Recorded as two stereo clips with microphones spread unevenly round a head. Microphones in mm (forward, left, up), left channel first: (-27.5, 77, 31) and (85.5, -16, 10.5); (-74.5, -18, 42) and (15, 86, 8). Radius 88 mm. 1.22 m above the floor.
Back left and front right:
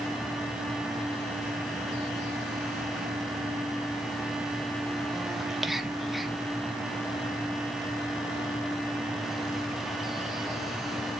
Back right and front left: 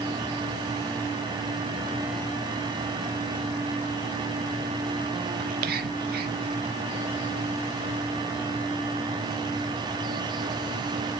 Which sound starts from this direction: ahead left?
Whispering, at 5.4 s.